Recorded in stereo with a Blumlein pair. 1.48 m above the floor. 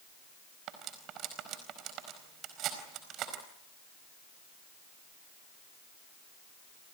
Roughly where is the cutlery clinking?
Ahead right.